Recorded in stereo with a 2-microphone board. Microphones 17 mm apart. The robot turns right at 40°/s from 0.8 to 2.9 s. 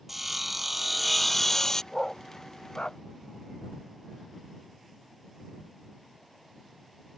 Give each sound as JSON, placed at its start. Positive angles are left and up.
{"t": 0.1, "sound": "sawing", "azimuth_deg": -10}
{"t": 1.9, "sound": "a dog barking", "side_deg": 15}